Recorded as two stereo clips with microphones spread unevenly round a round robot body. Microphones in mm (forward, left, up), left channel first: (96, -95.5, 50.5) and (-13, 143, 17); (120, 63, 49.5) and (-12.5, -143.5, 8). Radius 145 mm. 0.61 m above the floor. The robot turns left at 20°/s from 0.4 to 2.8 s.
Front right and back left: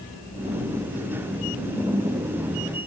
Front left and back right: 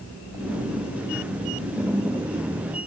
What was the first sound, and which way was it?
Only background noise.